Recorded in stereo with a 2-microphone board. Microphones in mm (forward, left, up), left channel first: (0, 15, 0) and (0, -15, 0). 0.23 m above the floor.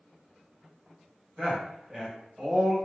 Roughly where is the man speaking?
Right.